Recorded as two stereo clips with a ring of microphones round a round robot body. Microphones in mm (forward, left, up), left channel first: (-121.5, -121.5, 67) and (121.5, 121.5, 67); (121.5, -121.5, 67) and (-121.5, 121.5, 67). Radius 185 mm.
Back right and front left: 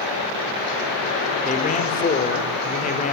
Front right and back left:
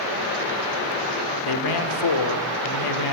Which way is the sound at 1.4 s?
65° right.